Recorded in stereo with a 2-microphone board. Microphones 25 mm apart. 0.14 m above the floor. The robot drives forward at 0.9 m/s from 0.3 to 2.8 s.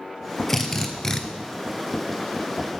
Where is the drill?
10° left (ahead or behind), 1.4 m; by 1.2 s 20° left (ahead or behind), 0.9 m.